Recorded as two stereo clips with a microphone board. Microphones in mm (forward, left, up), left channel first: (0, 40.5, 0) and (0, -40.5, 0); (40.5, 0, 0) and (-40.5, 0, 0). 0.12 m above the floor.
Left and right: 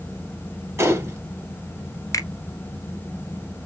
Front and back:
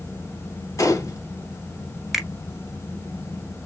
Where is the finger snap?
90° left, 1.3 m.